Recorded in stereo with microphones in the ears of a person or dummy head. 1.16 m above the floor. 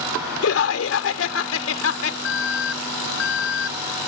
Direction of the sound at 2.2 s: 70° left (ahead or behind).